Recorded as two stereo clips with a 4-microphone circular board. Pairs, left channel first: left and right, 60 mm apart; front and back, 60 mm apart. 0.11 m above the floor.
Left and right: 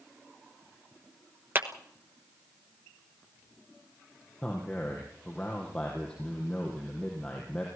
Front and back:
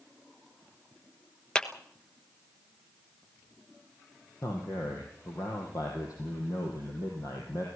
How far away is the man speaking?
About 4.5 m.